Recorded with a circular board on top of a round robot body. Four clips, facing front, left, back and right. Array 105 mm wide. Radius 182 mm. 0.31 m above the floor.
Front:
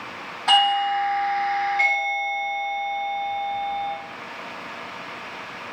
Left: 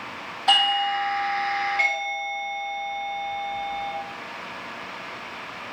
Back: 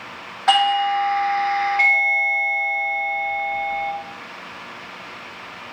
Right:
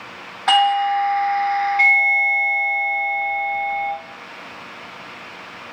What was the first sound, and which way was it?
A doorbell, 115° right.